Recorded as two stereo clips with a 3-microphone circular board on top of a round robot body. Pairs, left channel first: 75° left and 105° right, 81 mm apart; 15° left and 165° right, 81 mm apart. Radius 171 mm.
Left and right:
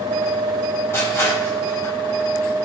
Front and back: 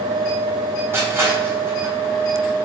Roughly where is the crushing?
Behind left.